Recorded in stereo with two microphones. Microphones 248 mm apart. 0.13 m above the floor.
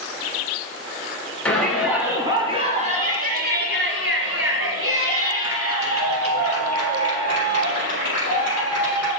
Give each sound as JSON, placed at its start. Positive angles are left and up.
{"t": 1.4, "sound": "a shout", "side_deg": 5, "distance_m": 1.6}